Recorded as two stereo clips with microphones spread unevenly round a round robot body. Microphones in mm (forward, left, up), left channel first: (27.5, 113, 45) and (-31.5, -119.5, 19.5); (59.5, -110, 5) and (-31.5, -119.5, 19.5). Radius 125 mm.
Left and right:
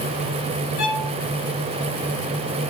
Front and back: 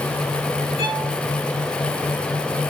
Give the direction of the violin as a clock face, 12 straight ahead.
11 o'clock.